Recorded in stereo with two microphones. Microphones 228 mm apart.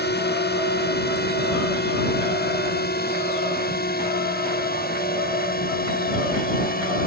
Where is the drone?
45° left (ahead or behind); by 7.1 s 40° left (ahead or behind).